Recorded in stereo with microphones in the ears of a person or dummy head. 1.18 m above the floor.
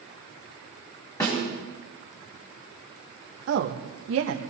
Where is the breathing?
No breathing in this recording.